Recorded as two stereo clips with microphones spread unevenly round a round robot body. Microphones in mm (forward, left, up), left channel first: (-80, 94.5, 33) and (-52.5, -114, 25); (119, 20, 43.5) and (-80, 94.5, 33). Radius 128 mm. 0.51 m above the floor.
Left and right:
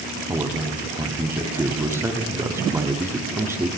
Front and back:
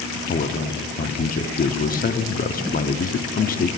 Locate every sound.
0.3 s a man speaking: 15° right, 0.7 m